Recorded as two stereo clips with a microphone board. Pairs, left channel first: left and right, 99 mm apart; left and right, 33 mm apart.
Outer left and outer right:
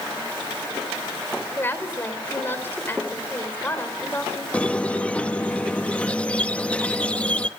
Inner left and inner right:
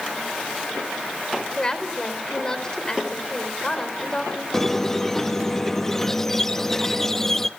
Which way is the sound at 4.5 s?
15° left (ahead or behind).